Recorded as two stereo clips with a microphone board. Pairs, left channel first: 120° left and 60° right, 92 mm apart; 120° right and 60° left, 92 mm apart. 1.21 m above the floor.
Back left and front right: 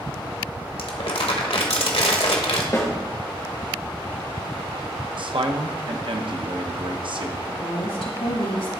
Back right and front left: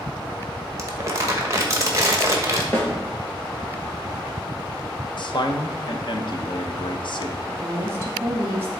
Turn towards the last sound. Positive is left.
turn(degrees=120)